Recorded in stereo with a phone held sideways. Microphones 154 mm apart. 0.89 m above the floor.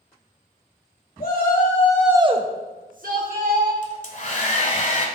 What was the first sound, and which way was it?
A shout, 75° left (ahead or behind).